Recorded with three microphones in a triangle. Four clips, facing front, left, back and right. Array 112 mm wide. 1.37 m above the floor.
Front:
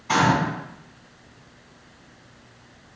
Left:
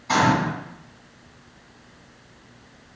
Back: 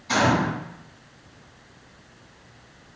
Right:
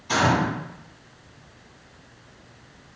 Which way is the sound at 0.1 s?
45° left.